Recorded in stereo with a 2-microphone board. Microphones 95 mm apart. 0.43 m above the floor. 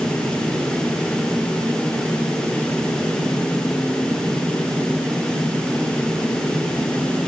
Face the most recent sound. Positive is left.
No sound to turn to.